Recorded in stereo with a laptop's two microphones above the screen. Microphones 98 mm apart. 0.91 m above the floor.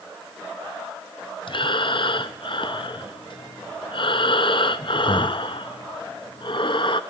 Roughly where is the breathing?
Left.